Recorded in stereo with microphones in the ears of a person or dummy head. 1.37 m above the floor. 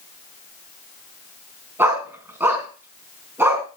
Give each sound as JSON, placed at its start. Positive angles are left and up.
{"t": 1.8, "sound": "a dog barking", "side_deg": -10, "distance_m": 4.0}